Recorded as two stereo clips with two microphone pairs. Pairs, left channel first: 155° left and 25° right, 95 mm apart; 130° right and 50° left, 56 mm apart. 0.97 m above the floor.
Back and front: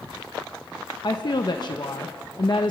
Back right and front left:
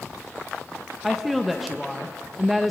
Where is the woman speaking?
135° left, 1.0 m.